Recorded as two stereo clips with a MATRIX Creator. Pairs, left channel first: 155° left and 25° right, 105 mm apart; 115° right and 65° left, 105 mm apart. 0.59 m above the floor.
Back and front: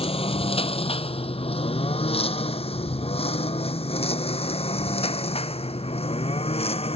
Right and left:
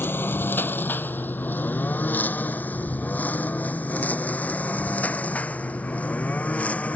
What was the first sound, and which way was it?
A lawn mower, straight behind.